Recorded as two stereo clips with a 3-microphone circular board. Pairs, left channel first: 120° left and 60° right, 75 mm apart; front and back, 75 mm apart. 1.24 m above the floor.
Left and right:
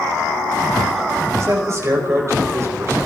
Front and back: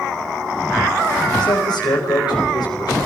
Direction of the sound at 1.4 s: 15° right.